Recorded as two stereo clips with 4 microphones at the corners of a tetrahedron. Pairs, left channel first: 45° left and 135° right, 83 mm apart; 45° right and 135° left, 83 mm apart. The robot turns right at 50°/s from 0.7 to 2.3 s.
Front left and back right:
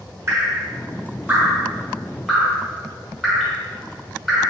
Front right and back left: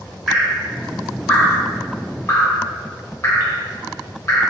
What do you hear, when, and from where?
0.3 s dripping: 130° right, 1.2 m; by 4.5 s 50° right, 1.2 m